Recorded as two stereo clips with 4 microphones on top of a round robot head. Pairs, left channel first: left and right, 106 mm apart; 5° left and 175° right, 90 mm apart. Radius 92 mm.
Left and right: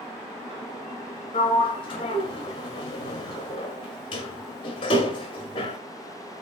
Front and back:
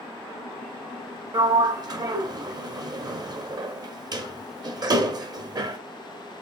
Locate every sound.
1.3 s a sliding door: 140° left, 0.7 m